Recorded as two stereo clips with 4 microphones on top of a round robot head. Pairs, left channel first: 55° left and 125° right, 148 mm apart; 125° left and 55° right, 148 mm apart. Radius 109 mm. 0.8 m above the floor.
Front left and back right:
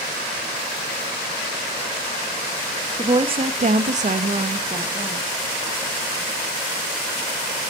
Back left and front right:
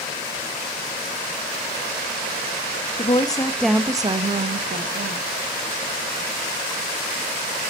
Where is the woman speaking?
175° left, 1.5 m; by 5.2 s 65° right, 2 m.